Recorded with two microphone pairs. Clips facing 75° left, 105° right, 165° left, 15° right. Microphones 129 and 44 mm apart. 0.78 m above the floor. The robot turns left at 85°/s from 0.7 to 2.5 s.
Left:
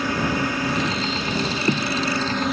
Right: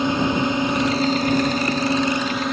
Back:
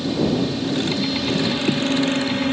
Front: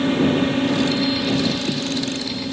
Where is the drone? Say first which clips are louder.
Right 3 dB, front 3 dB; 45° right; by 2.5 s 165° left.